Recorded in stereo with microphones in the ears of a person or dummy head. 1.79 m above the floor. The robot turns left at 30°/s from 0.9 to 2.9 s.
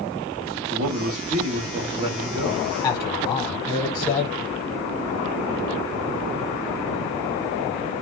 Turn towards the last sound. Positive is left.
turn(degrees=25)  # may be behind; listen again after turning